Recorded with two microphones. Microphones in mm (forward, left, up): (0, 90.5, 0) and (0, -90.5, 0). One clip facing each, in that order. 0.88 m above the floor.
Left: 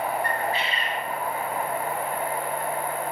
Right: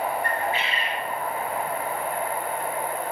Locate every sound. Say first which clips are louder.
0.2 s a bird: even; 35° left (ahead or behind), 2 m